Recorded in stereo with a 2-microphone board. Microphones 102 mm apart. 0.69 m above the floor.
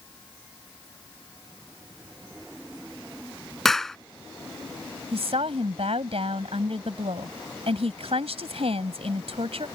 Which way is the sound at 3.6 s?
5° left (ahead or behind).